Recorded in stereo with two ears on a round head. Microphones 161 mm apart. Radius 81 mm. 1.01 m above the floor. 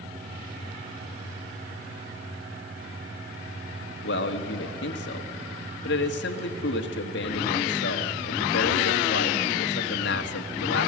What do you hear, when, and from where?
4.0 s a man speaking: 70° left (ahead or behind), 1.9 m